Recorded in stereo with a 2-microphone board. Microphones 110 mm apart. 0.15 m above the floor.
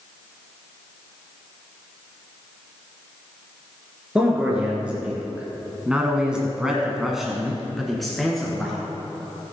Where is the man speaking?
10° right (ahead or behind), 3 m; by 8.8 s 5° left (ahead or behind), 2.5 m.